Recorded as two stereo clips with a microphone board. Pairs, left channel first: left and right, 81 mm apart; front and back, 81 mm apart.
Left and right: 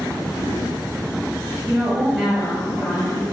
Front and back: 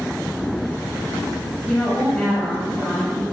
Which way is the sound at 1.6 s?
50° right.